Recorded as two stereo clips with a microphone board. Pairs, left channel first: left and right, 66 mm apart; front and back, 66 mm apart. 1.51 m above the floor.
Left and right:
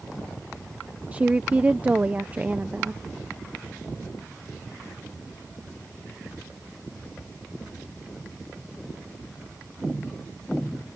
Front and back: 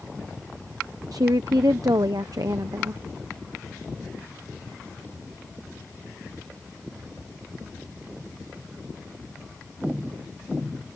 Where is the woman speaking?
155° right.